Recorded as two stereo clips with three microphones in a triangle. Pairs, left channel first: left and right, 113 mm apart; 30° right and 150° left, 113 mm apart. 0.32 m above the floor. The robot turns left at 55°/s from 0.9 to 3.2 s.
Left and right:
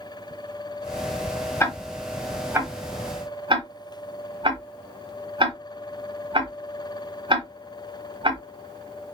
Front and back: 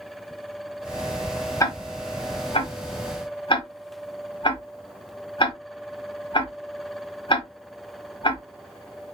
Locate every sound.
1.6 s ticking: 25° left, 1.0 m; by 8.4 s 60° right, 1.0 m